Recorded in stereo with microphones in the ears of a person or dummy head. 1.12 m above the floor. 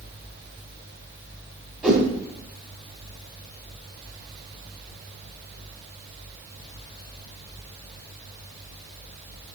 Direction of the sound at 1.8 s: 5° right (ahead or behind).